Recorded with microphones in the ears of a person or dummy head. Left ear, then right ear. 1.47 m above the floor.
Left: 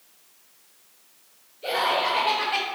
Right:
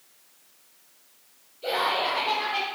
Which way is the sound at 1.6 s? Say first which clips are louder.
Left 2 dB; 10° right (ahead or behind).